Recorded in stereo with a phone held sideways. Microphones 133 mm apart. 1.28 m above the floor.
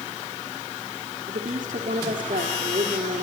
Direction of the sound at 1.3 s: 75° right (ahead or behind).